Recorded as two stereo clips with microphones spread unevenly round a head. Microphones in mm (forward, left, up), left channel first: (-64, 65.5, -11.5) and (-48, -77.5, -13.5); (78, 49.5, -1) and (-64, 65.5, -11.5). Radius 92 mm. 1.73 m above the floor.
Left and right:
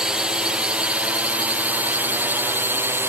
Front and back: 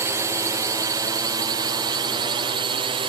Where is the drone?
160° right; by 3.1 s 150° right.